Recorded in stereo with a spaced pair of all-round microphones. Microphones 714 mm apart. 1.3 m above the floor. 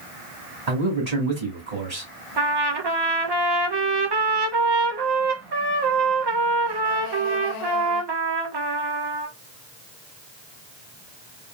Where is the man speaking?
60° right (ahead or behind), 2.5 m.